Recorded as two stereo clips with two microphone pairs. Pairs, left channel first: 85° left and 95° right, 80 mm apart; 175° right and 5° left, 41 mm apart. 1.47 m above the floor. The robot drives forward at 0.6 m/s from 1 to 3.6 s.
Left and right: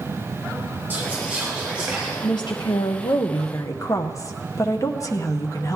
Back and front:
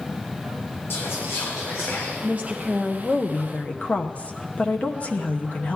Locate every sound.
0.9 s whispering: 165° right, 0.7 m; by 2.1 s 170° right, 1.4 m
2.2 s a woman speaking: 55° left, 0.7 m; by 5.8 s 130° left, 0.7 m